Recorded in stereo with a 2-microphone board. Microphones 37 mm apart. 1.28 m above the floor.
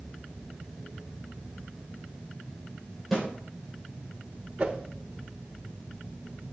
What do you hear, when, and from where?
3.1 s a snare drum: centre (ahead or behind), 6.5 m
4.6 s a whoosh: 35° right (ahead or behind), 1.1 m